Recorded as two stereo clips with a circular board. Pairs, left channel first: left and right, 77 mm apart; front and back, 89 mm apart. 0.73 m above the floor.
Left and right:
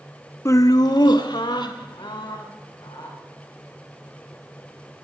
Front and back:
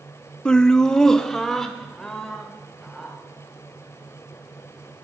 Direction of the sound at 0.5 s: 75° left.